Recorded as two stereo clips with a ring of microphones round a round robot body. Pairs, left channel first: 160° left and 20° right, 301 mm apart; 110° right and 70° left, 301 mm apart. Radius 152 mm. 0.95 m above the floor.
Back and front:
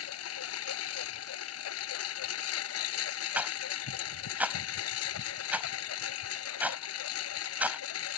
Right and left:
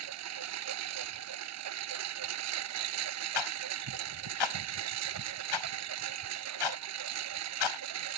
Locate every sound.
0.0 s a lawn mower: 110° left
3.4 s a rattle: 110° right